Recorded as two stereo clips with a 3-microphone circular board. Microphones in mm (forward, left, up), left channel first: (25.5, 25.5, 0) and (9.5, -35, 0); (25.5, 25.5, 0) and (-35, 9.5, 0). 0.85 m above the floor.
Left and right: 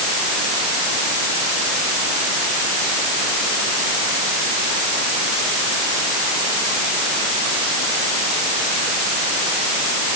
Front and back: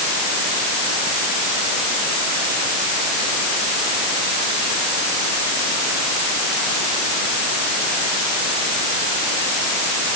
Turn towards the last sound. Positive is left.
No sound to turn to.